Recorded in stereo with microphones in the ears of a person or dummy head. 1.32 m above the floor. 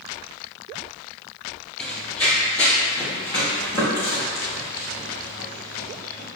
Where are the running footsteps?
5° left (ahead or behind), 1.5 m; by 6.3 s 15° left (ahead or behind), 6.5 m.